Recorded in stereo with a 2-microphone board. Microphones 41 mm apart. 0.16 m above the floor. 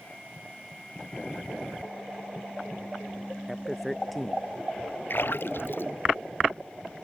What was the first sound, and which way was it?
A man speaking, centre (ahead or behind).